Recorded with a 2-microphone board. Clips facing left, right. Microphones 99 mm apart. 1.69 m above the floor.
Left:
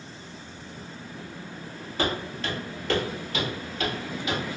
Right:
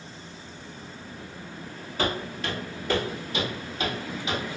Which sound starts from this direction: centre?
Footsteps, at 2.0 s.